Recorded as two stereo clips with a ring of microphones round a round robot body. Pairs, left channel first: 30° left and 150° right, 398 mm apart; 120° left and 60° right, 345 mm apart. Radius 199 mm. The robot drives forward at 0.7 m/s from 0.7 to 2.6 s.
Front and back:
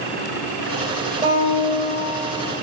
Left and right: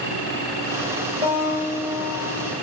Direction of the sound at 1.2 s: 130° left.